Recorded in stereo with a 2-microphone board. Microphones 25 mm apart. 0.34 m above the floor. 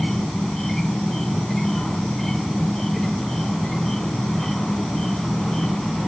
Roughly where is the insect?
Centre.